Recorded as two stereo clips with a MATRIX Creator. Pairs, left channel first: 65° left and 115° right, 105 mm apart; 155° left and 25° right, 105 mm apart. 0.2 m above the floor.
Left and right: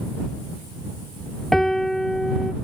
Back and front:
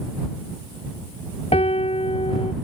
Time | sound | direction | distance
1.5 | a piano | 155° left | ?